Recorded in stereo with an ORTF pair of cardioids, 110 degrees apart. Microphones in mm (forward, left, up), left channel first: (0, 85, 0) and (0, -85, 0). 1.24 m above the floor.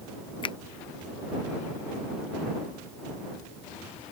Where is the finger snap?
30° left.